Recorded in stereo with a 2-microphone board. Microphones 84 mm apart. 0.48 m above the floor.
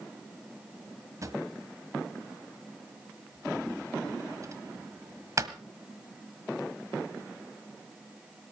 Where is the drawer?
45° right (ahead or behind), 1.3 m.